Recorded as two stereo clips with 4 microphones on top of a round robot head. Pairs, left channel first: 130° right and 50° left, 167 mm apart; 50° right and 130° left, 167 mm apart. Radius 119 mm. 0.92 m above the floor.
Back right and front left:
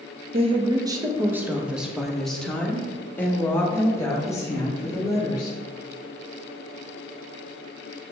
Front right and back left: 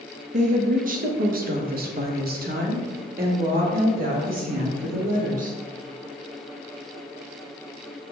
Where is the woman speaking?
95° left, 1.0 m; by 5.6 s 165° left, 3 m.